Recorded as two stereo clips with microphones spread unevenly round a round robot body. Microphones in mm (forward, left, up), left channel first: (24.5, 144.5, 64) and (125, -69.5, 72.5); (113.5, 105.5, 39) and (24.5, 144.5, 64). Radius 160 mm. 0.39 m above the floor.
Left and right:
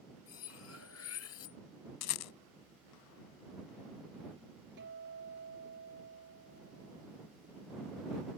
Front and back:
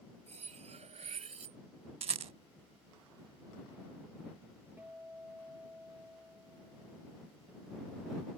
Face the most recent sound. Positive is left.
turn(degrees=-120)